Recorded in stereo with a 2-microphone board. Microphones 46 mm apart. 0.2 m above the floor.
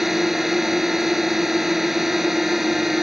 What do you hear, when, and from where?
0.0 s a drone: 5° right (ahead or behind)